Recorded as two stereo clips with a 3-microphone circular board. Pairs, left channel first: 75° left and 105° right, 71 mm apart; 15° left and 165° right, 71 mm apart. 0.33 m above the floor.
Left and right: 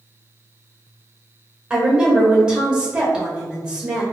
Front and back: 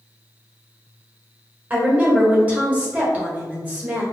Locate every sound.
1.7 s a woman speaking: 155° right, 1.1 m